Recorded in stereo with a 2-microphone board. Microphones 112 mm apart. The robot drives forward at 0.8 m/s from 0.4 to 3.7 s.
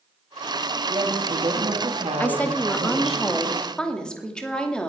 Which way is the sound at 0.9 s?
50° right (ahead or behind).